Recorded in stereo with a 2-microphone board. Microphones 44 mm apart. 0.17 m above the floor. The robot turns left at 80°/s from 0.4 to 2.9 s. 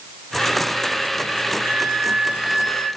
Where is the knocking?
No knocking in this recording.